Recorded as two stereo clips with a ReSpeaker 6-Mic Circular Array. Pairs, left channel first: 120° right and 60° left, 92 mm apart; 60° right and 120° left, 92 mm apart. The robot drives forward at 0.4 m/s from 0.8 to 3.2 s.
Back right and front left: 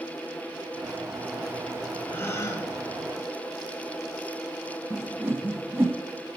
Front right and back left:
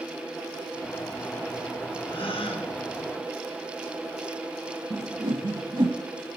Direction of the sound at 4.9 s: 120° left.